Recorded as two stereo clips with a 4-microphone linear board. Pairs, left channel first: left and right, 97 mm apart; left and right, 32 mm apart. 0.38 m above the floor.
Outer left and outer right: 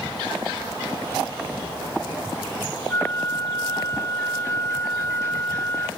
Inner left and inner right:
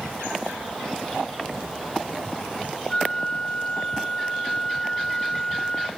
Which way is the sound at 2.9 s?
30° left (ahead or behind).